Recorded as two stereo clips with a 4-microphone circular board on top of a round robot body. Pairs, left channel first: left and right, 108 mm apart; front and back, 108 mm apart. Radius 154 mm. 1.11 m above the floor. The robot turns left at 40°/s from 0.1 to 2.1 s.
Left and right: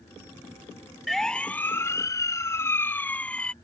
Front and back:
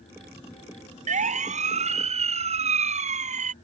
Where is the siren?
Straight behind; by 3.5 s 170° left.